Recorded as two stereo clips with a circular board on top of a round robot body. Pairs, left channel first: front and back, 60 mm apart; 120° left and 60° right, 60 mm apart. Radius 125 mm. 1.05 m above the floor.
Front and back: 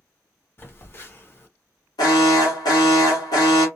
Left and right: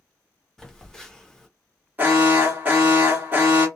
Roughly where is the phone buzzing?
Ahead left.